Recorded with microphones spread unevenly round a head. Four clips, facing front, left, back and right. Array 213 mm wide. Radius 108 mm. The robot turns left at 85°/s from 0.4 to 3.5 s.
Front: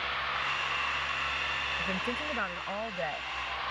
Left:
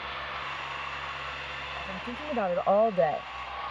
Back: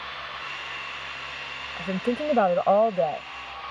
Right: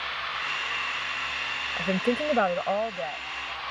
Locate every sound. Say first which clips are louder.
1.8 s a woman speaking: right 14 dB, back 12 dB; 115° right; by 3.3 s 115° left